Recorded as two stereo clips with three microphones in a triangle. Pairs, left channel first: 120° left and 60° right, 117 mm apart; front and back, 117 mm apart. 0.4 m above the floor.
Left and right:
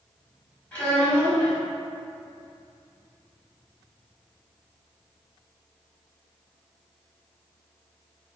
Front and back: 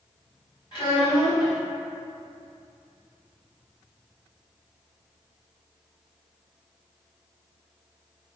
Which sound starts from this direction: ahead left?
A child speaking, at 0.7 s.